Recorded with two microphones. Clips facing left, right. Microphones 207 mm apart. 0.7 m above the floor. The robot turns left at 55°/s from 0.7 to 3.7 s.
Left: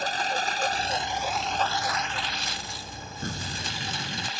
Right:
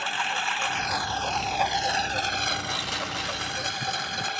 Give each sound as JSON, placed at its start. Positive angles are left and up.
{"t": 0.0, "sound": "a lawn mower", "azimuth_deg": 40}
{"t": 3.2, "sound": "an explosion", "side_deg": 50}